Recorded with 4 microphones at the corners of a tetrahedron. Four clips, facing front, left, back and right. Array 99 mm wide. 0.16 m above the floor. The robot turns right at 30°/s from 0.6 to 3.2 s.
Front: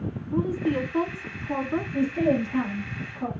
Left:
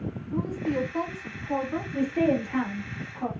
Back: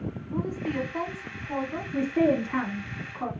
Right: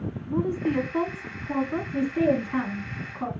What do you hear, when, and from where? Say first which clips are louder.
0.3 s a woman speaking: right 4 dB, front 6 dB; 65° right, 1.2 m; by 1.8 s 30° right, 1.2 m
1.9 s a woman speaking: right 1 dB, back 1 dB; 175° right, 2.5 m; by 3.3 s 135° right, 2.5 m